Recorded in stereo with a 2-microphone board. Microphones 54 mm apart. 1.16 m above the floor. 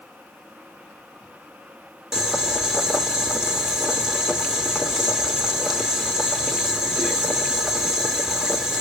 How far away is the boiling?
About 1.3 m.